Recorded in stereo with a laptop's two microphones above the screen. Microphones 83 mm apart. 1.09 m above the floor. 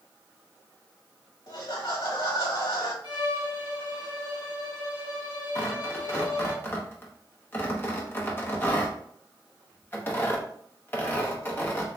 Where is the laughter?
60° left (ahead or behind), 1.2 m.